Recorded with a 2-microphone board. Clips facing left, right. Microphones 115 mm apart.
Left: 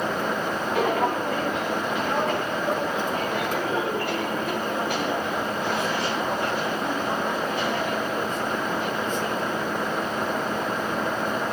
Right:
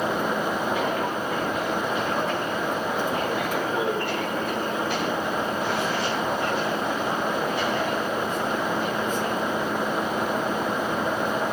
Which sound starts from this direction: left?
Footsteps, at 0.8 s.